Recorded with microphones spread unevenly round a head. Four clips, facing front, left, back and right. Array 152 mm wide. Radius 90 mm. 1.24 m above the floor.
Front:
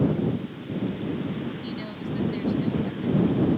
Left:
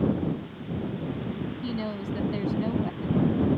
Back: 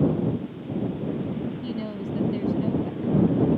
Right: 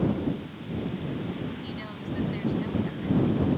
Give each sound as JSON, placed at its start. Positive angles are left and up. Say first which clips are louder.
{"t": 1.6, "sound": "a woman speaking", "louder": "left 5 dB, back 2 dB", "azimuth_deg": 135}